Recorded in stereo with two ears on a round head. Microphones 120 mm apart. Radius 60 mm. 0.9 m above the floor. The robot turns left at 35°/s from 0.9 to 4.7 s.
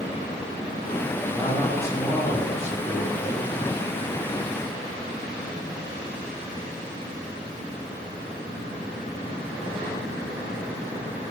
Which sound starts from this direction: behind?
A man speaking, at 1.3 s.